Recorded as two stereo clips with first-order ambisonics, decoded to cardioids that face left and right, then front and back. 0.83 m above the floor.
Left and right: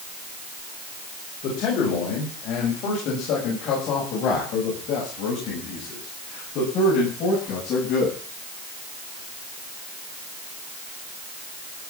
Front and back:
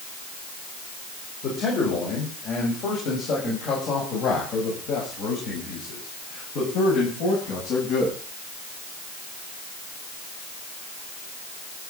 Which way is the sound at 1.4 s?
55° left.